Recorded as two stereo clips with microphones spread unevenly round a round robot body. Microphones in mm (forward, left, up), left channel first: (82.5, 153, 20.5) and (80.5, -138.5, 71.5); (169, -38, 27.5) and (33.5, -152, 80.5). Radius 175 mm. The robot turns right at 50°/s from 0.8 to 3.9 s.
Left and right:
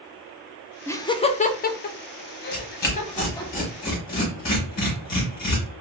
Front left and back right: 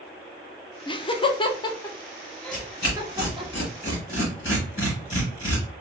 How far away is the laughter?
About 0.6 m.